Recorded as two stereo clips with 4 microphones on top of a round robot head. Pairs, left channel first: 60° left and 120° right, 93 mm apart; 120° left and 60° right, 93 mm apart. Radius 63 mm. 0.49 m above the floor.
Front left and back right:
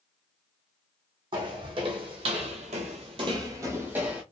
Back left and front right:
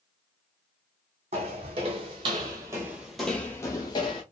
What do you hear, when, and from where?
1.3 s footsteps: 80° right, 1.2 m; by 4.2 s 160° left, 0.8 m